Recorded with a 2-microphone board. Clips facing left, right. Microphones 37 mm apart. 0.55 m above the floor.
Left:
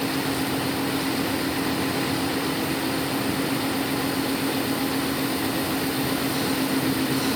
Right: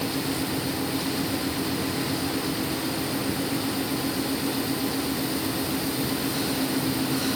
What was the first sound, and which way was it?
Only background noise.